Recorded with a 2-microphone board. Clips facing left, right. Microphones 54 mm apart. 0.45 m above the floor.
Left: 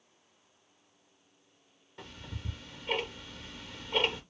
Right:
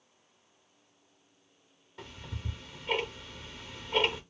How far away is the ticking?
About 0.8 m.